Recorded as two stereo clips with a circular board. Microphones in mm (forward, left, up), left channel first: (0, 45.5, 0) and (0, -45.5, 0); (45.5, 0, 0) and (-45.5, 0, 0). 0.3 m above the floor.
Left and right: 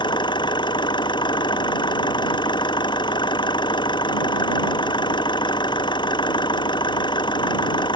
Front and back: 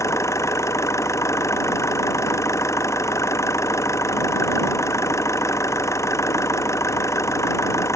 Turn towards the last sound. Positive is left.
turn(degrees=55)